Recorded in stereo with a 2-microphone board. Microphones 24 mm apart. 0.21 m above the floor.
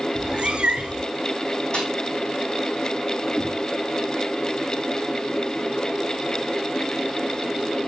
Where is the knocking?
70° left (ahead or behind), 2.5 m.